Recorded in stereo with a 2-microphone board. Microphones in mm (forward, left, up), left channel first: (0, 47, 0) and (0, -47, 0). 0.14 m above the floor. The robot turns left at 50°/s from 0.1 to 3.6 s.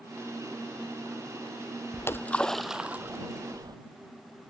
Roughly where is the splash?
Left.